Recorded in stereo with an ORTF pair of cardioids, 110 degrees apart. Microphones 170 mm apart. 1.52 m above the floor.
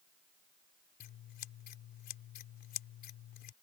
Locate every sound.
1.0 s scissors: 65° left